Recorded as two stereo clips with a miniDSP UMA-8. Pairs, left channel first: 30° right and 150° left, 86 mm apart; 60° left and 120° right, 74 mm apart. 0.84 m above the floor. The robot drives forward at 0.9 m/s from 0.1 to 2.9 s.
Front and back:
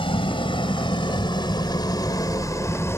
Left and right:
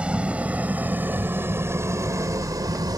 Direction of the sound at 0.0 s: 45° right.